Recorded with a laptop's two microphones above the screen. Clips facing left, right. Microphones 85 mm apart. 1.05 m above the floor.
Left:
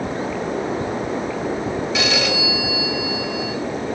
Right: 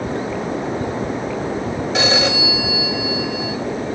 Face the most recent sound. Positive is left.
turn(degrees=-35)  # may be behind; listen again after turning